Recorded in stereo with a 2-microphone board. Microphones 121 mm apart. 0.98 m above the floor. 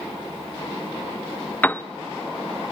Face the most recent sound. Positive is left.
turn(degrees=15)  # may be behind; listen again after turning